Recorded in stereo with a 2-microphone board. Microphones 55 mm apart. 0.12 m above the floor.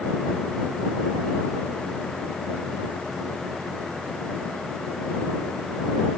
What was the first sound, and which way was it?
Only background noise.